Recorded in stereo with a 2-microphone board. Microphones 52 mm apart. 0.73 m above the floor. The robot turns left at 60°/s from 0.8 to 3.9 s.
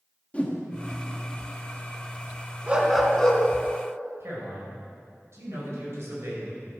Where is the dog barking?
150° right, 1.6 m; by 3.4 s 160° left, 1.6 m.